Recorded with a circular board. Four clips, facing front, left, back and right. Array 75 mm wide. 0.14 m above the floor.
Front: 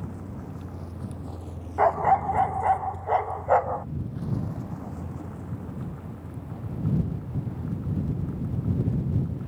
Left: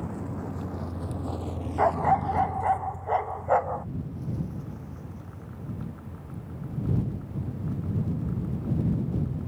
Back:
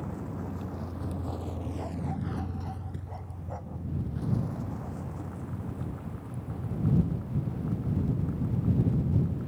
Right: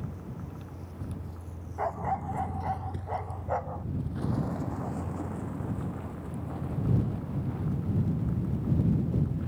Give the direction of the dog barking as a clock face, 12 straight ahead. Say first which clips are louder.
Left 8 dB, front 19 dB; 11 o'clock.